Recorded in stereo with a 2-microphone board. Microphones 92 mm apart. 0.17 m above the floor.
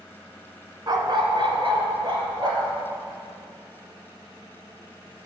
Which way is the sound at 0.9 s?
45° right (ahead or behind).